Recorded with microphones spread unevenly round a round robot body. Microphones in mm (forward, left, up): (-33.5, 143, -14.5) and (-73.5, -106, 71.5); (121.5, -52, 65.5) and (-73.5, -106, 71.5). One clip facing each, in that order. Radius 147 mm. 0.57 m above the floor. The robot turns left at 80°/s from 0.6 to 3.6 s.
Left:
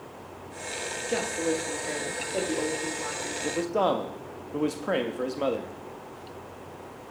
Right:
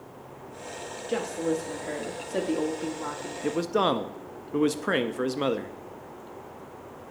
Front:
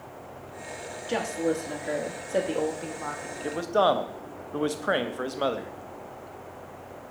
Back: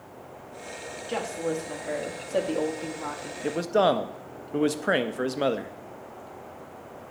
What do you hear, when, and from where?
1.1 s a woman speaking: 70° left, 1.0 m; by 3.3 s 110° right, 1.0 m
3.4 s a man speaking: 150° right, 0.6 m; by 5.8 s 165° right, 0.6 m